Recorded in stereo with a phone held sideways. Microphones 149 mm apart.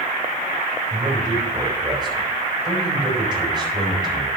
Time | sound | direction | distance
0.9 | a man speaking | 30° right (ahead or behind) | 4 m